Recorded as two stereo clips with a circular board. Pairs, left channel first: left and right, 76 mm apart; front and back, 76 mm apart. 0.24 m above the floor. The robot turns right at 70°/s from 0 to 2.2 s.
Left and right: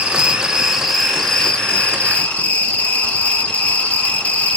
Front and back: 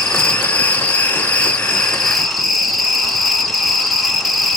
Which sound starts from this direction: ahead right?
An insect, at 0.0 s.